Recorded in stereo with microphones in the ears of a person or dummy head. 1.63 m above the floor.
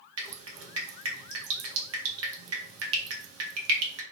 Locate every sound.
0.2 s dripping: 85° right, 0.7 m